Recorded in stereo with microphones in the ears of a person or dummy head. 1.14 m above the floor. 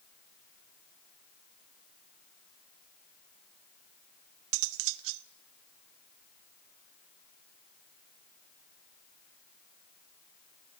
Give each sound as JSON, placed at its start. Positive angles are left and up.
{"t": 4.5, "sound": "cutlery clinking", "side_deg": -75, "distance_m": 0.9}